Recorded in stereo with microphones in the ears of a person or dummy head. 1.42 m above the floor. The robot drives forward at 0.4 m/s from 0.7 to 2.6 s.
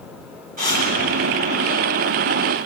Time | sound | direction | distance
0.6 | breathing | 45° right (ahead or behind) | 7 m